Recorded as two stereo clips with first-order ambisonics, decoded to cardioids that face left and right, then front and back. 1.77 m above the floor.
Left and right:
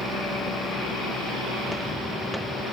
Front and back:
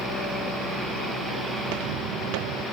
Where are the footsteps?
Straight behind; by 2.6 s 175° right.